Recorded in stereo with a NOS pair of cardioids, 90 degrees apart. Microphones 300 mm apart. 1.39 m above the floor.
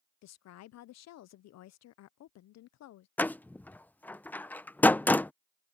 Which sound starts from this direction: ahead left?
A woman speaking, at 0.2 s.